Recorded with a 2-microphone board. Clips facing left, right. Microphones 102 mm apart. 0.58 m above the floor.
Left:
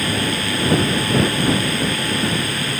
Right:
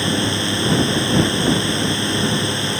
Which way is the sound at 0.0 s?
25° right (ahead or behind).